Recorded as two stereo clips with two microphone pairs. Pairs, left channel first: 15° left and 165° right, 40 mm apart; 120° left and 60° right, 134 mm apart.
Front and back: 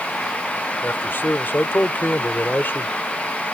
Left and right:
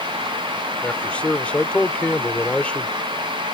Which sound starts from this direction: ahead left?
A man speaking, at 0.8 s.